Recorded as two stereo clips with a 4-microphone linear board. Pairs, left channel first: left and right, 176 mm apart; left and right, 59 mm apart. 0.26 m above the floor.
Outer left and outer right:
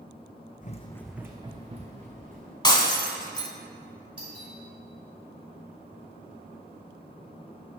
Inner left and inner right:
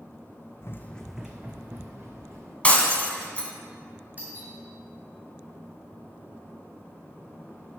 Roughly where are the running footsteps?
Left.